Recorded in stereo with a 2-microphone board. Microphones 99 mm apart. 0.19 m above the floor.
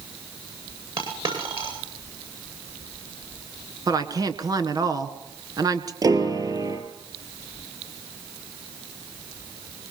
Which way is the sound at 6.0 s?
40° right (ahead or behind).